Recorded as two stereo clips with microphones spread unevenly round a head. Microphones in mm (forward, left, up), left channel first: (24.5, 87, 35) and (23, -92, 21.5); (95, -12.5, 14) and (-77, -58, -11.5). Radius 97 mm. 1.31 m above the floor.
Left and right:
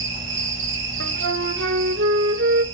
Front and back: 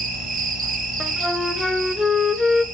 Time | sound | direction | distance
0.0 | an insect | 120° right | 5.5 m
1.0 | a flute | 70° right | 1.5 m